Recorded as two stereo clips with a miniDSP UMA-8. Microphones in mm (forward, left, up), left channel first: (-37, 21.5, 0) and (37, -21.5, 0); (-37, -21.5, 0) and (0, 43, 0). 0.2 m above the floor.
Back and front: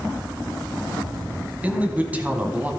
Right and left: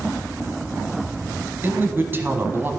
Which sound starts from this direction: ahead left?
A man speaking, at 1.6 s.